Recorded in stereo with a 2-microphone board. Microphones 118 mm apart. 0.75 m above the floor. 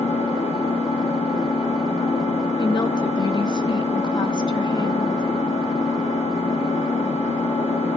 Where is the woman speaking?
40° left (ahead or behind), 0.8 m.